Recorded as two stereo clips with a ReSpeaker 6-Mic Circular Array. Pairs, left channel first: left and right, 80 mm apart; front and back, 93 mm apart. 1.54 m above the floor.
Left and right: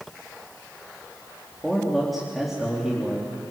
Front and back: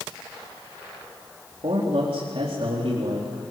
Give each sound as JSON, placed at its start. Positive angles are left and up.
{"t": 1.6, "sound": "a man speaking", "azimuth_deg": -175, "distance_m": 4.0}